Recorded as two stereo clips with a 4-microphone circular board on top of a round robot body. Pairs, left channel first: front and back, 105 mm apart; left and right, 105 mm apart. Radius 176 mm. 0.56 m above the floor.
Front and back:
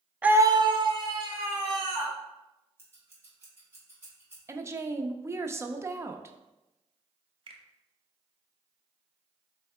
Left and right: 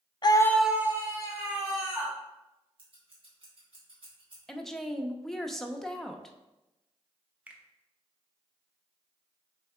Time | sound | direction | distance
0.2 | a scream | 105° left | 0.7 m
2.8 | scissors | 115° right | 2.5 m
4.5 | a woman speaking | 175° left | 0.7 m
7.5 | a finger snap | 165° right | 0.8 m